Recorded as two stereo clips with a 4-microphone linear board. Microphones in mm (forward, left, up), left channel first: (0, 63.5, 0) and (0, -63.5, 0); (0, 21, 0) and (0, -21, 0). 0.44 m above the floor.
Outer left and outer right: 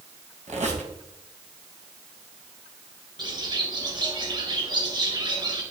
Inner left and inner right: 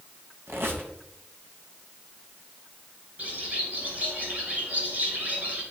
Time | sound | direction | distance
0.5 | a squeak | 65° right (ahead or behind) | 3 m
3.2 | a bird | 35° right (ahead or behind) | 3 m